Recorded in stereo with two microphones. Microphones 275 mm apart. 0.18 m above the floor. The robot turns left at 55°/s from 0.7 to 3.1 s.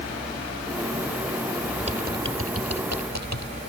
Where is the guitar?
I don't hear a guitar.